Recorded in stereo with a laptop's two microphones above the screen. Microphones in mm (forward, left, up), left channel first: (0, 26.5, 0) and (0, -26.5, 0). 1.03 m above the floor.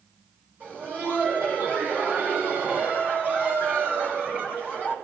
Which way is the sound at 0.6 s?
30° right (ahead or behind).